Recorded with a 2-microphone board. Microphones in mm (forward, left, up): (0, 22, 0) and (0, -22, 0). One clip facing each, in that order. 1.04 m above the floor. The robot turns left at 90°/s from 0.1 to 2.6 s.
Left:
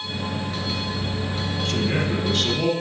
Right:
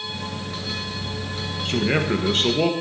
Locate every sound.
1.6 s a man speaking: 45° right, 0.9 m; by 2.7 s 130° right, 0.9 m